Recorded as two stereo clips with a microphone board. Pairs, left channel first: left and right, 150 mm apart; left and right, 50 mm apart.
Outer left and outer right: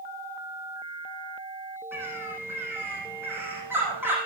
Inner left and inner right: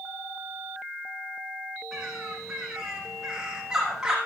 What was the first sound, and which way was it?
A bird, 15° right (ahead or behind).